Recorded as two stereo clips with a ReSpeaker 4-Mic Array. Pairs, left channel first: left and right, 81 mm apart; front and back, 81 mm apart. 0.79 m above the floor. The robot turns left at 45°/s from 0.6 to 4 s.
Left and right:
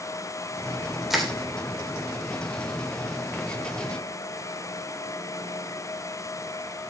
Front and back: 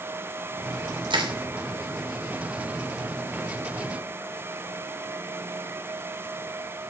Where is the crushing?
175° right, 3 m; by 1.3 s 175° left, 3 m.